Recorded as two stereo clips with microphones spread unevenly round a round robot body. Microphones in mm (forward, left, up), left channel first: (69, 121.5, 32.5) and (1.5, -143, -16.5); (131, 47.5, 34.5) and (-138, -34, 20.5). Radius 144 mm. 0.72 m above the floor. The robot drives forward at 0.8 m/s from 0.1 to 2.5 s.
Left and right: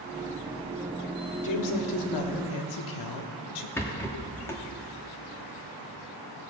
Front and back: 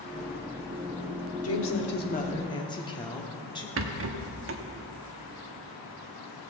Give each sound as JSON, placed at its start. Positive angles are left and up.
{"t": 1.4, "sound": "a woman speaking", "azimuth_deg": 55, "distance_m": 1.5}
{"t": 3.8, "sound": "a rattle", "azimuth_deg": 160, "distance_m": 0.9}